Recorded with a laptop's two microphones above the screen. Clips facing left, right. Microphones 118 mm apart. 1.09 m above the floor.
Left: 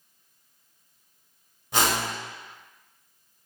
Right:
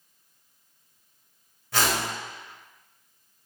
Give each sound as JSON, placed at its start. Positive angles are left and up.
{"t": 1.7, "sound": "a whoosh", "side_deg": 25, "distance_m": 0.9}